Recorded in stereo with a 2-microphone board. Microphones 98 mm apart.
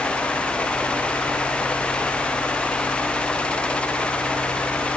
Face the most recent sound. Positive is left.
No sound to turn to.